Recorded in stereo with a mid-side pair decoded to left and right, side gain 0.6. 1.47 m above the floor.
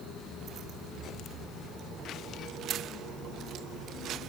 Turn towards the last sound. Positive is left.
No sound to turn to.